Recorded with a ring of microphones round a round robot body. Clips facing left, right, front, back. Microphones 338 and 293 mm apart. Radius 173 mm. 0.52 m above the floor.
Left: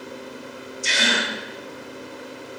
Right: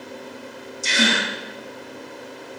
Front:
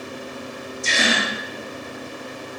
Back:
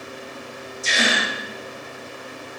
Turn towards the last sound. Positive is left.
turn(degrees=-105)